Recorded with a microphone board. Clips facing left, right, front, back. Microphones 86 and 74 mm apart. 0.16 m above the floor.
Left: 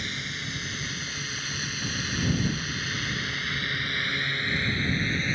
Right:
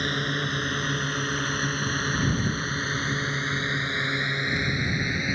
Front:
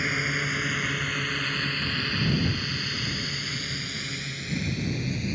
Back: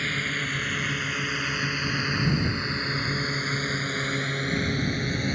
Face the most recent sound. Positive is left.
turn(degrees=-165)